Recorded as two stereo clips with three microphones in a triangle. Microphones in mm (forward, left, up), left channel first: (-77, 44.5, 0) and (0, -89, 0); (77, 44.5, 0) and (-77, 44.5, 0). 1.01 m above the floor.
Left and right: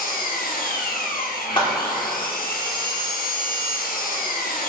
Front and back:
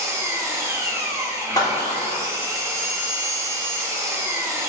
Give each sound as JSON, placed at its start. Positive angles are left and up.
{"t": 0.0, "sound": "an engine running", "azimuth_deg": 110, "distance_m": 1.1}
{"t": 1.6, "sound": "a clap", "azimuth_deg": 65, "distance_m": 1.8}